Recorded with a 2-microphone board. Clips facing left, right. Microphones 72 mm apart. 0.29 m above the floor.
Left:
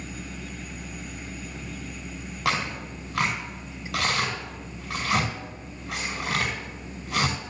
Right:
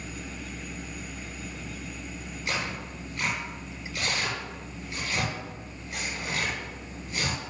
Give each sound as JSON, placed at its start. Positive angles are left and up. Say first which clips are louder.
{"t": 2.5, "sound": "tearing paper", "louder": "left 5 dB", "side_deg": 75, "distance_m": 5.0}